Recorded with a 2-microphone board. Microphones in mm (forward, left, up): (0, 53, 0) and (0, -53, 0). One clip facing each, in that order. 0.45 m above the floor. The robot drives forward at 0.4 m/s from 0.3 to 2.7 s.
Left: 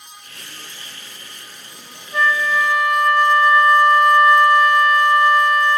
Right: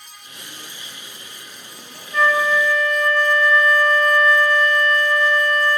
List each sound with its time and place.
2.1 s a flute: 15° left (ahead or behind), 1.0 m